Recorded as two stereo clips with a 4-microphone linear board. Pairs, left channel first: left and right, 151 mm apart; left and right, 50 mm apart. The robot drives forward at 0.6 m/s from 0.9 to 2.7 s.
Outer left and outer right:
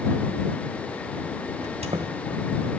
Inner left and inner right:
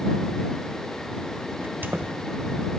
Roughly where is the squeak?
Right.